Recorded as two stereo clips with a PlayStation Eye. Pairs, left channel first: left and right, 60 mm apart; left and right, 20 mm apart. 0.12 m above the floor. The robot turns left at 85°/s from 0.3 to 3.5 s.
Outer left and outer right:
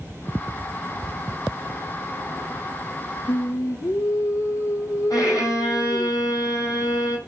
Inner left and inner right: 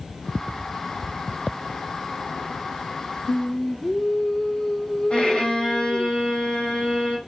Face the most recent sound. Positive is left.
turn(degrees=75)  # may be behind; listen again after turning